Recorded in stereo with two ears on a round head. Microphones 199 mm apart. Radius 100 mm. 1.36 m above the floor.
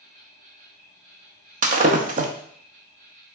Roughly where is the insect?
Right.